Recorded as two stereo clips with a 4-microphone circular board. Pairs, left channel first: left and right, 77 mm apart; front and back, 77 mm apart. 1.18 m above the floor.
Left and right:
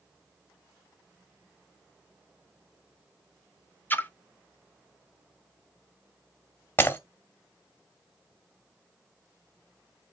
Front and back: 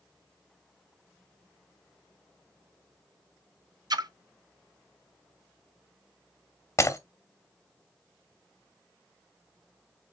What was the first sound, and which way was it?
A splash, 155° left.